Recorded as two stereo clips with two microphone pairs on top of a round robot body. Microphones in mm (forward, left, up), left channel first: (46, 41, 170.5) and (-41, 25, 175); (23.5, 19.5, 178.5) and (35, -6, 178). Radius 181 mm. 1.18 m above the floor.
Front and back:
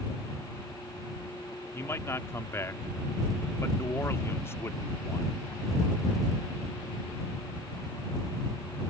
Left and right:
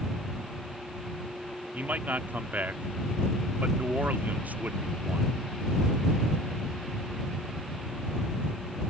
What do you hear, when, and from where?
1.7 s a man speaking: 55° right